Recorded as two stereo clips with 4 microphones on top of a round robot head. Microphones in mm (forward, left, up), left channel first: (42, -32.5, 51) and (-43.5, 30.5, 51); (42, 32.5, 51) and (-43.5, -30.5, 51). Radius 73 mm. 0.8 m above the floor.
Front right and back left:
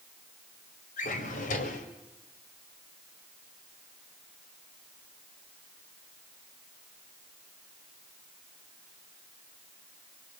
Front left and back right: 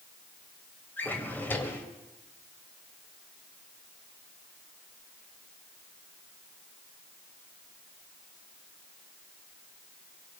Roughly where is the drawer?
Ahead right.